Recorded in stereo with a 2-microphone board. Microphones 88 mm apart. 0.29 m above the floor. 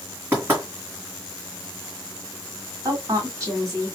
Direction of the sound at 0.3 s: 25° right (ahead or behind).